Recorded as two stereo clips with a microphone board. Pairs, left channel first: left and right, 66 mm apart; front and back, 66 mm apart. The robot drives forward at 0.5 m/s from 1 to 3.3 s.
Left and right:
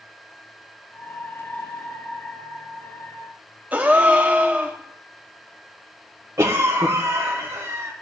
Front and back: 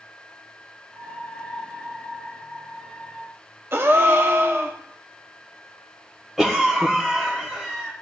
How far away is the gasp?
About 0.7 m.